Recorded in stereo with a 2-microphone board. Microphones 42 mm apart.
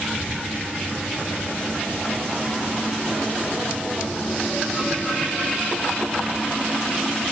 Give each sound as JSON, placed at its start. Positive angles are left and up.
{"t": 0.1, "sound": "whispering", "side_deg": -45, "distance_m": 8.0}